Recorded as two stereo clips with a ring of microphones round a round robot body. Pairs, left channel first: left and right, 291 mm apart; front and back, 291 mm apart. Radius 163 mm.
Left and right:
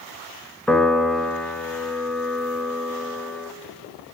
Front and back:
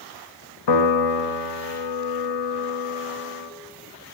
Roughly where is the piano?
Ahead.